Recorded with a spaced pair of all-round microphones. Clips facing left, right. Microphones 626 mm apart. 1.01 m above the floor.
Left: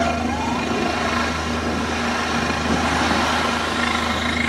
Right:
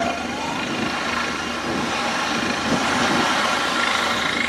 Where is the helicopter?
65° left (ahead or behind).